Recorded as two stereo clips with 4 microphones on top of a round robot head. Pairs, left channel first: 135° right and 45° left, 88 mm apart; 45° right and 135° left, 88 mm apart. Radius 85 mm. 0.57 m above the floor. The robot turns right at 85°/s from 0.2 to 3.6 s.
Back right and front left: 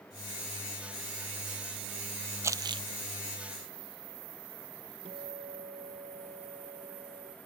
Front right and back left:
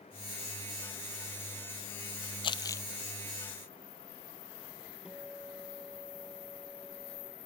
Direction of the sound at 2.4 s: 15° right.